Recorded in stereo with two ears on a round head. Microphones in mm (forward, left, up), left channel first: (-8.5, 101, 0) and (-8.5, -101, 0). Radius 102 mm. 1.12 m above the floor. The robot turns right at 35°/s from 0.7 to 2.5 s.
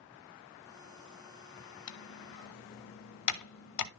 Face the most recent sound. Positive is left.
turn(degrees=85)